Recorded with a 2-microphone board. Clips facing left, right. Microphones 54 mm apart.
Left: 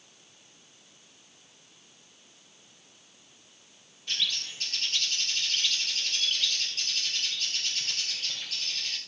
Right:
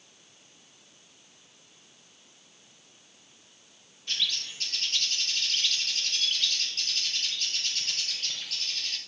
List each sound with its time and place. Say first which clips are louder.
4.1 s a bird: even; 5° left (ahead or behind), 2.5 m